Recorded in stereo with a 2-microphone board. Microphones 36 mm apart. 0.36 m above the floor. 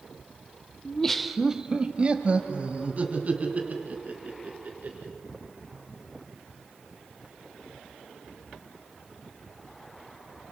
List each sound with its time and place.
0.8 s laughter: 20° left (ahead or behind), 0.9 m; by 5.1 s 45° right (ahead or behind), 5 m